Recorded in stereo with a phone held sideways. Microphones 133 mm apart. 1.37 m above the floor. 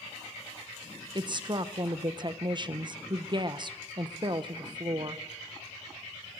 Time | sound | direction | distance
1.1 | a woman speaking | 35° right (ahead or behind) | 1.0 m